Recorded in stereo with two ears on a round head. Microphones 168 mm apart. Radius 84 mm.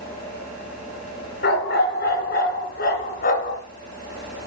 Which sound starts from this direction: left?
A dog barking, at 1.4 s.